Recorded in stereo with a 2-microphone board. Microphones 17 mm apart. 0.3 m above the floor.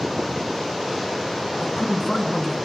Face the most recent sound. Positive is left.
turn(degrees=55)  # may be behind; listen again after turning